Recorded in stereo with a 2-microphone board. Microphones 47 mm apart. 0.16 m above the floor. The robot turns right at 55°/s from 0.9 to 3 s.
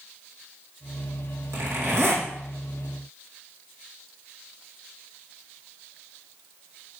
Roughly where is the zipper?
Right.